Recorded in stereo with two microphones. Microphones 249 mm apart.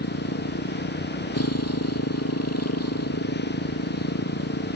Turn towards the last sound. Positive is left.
turn(degrees=80)